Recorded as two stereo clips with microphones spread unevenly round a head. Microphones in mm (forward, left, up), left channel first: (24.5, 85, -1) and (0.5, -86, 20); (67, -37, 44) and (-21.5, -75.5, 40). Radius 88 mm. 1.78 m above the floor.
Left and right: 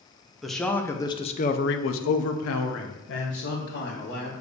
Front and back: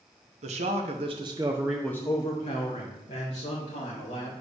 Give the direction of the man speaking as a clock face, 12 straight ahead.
6 o'clock.